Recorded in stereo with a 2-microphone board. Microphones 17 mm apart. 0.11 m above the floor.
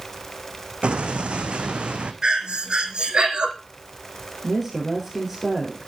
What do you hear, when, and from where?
0.8 s an explosion: 85° right, 1.4 m
2.2 s breathing: 60° right (ahead or behind), 2.0 m
4.4 s a woman speaking: 10° right (ahead or behind), 4 m